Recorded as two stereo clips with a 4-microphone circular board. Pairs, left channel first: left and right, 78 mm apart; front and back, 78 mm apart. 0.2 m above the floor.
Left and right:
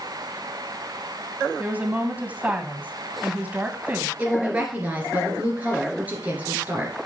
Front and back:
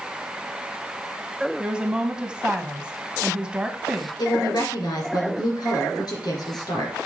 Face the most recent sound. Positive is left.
turn(degrees=-20)